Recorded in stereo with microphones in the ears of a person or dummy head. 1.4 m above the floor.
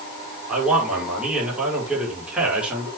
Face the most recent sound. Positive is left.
turn(degrees=-5)  # may be behind; listen again after turning